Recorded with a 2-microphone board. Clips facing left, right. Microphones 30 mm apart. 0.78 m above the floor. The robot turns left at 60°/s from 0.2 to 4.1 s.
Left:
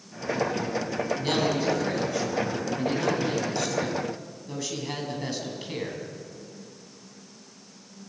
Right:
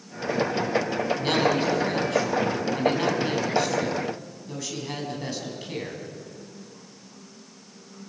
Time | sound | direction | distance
1.2 | a man speaking | 15° right | 7 m